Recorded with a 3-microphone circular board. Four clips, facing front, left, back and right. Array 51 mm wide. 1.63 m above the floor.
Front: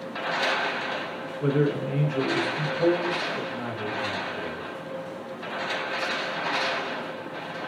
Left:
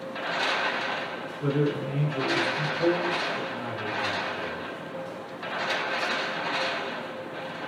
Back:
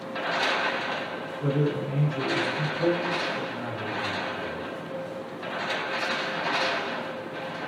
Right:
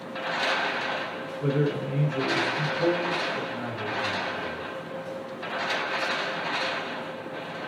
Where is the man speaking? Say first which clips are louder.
Even, front 3 dB; straight ahead, 1.8 m.